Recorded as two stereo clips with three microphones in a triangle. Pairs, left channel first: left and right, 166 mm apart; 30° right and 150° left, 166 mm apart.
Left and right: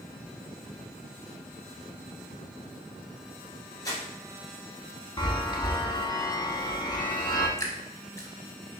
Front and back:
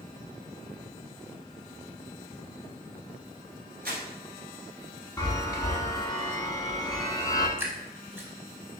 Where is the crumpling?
155° left, 1.4 m.